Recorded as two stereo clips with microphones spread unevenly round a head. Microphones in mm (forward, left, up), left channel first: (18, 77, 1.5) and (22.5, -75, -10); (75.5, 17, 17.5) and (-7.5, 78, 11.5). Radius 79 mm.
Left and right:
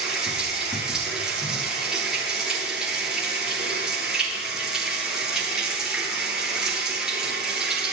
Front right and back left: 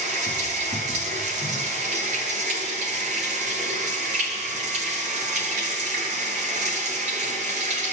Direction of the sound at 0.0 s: 175° right.